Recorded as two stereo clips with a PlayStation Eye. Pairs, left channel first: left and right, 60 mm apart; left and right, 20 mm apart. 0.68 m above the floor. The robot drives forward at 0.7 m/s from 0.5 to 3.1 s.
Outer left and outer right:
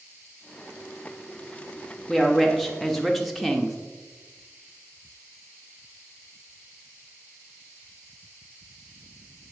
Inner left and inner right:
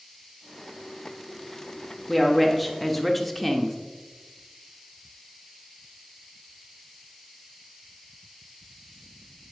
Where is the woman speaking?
Centre (ahead or behind), 0.8 m.